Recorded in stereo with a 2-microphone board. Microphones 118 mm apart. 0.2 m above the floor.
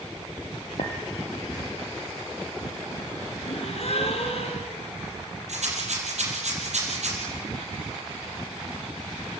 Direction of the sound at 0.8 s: 75° left (ahead or behind).